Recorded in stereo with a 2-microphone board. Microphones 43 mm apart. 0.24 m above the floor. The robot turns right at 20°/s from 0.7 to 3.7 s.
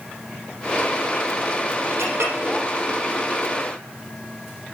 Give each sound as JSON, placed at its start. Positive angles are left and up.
{"t": 2.0, "sound": "a clink", "side_deg": -85, "distance_m": 5.0}